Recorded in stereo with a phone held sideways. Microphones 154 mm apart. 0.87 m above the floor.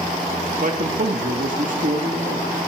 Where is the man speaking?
65° right (ahead or behind), 1.1 m.